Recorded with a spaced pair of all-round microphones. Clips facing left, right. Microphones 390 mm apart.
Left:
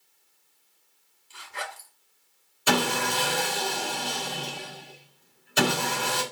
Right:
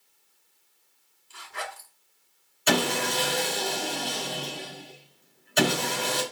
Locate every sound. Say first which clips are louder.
1.3 s a zipper: right 1 dB; centre (ahead or behind), 2.5 m
2.7 s sawing: right 1 dB; 20° left (ahead or behind), 5 m